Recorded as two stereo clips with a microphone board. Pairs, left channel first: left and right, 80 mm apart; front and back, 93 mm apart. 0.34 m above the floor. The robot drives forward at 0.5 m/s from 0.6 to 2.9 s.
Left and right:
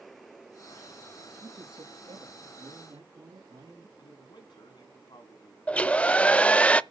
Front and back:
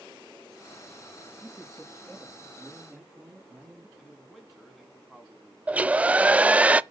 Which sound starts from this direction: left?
A man speaking, at 4.0 s.